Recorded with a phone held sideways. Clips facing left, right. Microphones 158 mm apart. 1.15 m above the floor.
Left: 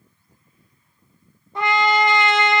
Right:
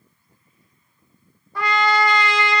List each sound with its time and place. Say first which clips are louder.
1.6 s a trumpet: left 1 dB; 25° left (ahead or behind), 0.6 m